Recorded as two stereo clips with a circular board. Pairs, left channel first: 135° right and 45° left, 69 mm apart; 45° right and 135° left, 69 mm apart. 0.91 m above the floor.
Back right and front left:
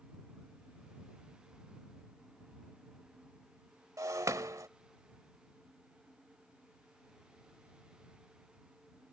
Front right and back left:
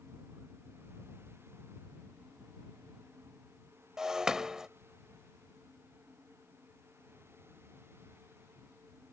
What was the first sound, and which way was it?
Breaking glass, 55° left.